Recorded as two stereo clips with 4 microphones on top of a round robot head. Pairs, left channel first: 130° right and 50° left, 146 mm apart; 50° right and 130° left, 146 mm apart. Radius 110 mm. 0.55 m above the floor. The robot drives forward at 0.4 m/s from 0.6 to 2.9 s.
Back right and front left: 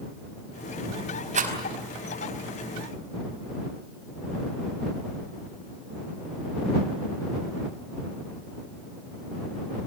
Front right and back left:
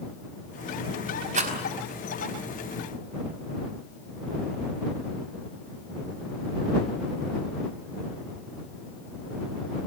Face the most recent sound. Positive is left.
turn(degrees=95)